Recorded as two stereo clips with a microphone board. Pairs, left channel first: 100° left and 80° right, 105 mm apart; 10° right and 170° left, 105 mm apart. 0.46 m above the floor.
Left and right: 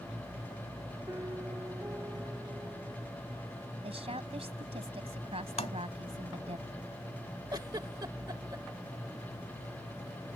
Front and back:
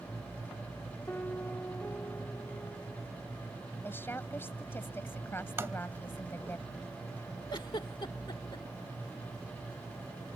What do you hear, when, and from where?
1.1 s a piano: 60° right
3.8 s a woman speaking: 80° right
5.6 s tapping: 105° left
7.5 s a giggle: 40° right